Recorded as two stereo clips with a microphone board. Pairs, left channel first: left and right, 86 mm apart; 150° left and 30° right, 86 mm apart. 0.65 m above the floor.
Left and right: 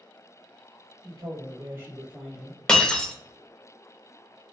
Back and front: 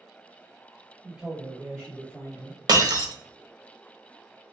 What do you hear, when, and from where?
1.0 s a man speaking: 110° right, 1.6 m; by 2.6 s 170° left, 1.3 m
2.7 s breaking glass: 10° left, 0.7 m